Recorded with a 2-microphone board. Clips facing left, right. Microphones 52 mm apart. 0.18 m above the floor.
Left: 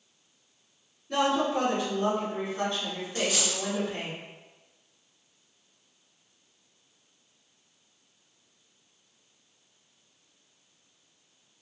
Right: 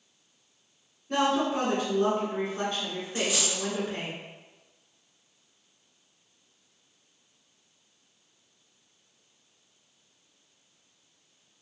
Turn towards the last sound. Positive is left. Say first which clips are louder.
# even
turn(degrees=-15)  # may be behind; listen again after turning